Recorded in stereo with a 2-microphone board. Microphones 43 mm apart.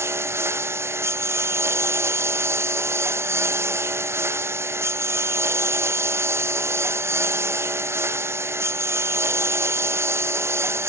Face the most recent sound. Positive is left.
turn(degrees=-80)